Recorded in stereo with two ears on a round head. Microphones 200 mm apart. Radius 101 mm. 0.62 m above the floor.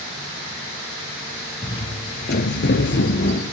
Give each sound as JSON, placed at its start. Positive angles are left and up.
{"t": 1.6, "sound": "footsteps", "side_deg": 20, "distance_m": 1.1}